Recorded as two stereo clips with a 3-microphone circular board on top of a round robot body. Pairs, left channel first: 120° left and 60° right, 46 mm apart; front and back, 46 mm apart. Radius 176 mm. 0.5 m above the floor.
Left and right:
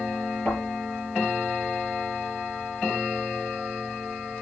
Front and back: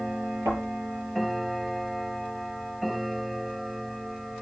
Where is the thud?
175° left, 7.5 m.